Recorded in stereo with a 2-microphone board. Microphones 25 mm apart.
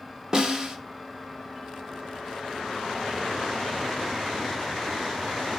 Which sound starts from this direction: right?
A snare drum, at 0.3 s.